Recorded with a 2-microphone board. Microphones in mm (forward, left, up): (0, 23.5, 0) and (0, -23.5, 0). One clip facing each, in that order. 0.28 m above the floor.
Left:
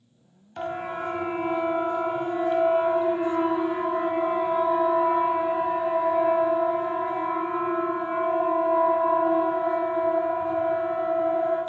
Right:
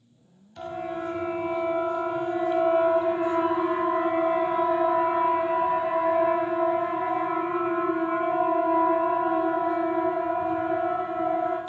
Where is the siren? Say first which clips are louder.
Left 2 dB; 45° left (ahead or behind), 2.5 m; by 11.6 s 40° right (ahead or behind), 12 m.